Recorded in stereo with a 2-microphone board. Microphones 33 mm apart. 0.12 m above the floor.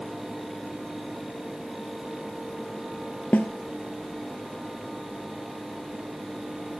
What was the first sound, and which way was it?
A snare drum, 60° left (ahead or behind).